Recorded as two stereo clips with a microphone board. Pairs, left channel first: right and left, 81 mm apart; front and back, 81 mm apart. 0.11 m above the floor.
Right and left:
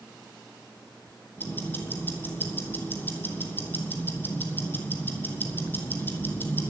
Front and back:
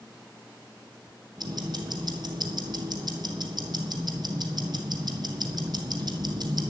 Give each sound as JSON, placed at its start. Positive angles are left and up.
{"t": 1.4, "sound": "ticking", "azimuth_deg": -155, "distance_m": 1.5}